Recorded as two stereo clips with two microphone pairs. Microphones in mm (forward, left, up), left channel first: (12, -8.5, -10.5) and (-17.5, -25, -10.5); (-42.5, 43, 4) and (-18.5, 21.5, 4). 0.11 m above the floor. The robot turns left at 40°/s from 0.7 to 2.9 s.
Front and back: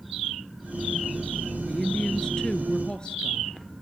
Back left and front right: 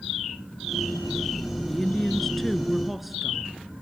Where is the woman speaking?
90° left, 1.3 m; by 3.6 s 40° left, 1.3 m.